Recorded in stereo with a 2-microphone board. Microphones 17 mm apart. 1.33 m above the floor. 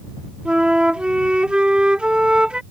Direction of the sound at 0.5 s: 85° right.